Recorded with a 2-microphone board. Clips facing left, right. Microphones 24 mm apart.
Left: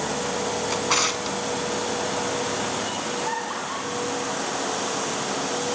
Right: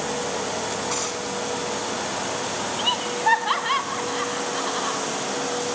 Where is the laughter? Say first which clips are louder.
Right 4 dB; 60° right (ahead or behind), 3.5 m.